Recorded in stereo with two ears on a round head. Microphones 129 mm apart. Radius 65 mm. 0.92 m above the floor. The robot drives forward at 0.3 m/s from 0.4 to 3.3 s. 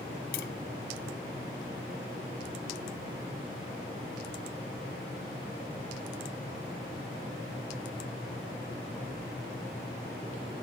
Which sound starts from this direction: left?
Tapping, at 0.3 s.